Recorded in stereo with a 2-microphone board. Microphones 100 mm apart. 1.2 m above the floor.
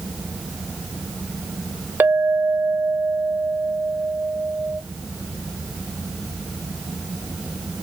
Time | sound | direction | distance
2.0 | a clink | 20° right (ahead or behind) | 0.5 m